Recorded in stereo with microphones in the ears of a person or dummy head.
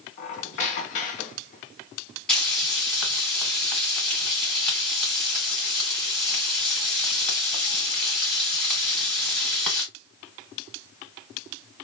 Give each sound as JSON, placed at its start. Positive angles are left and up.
{"t": 0.2, "sound": "a squeak", "side_deg": 35, "distance_m": 0.5}
{"t": 2.3, "sound": "frying", "side_deg": 0, "distance_m": 1.7}